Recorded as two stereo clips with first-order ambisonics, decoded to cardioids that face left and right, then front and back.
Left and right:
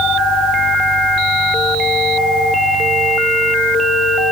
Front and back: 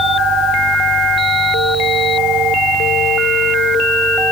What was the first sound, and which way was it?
Only background noise.